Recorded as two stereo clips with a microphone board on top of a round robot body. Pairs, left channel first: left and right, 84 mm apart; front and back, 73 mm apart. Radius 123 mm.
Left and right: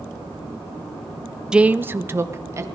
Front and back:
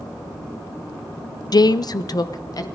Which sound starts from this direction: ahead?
A woman speaking, at 1.5 s.